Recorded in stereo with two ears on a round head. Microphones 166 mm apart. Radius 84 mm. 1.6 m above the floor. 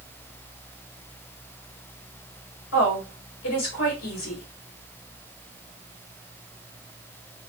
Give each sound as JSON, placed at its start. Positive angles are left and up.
{"t": 2.7, "sound": "a woman speaking", "side_deg": 85, "distance_m": 2.0}